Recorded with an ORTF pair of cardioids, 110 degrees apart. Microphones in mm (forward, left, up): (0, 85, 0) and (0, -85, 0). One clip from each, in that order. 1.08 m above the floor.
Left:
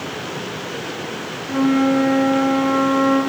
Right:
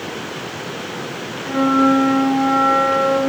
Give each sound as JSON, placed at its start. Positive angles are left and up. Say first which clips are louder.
{"t": 1.4, "sound": "a flute", "louder": "right 3 dB", "azimuth_deg": -40, "distance_m": 3.0}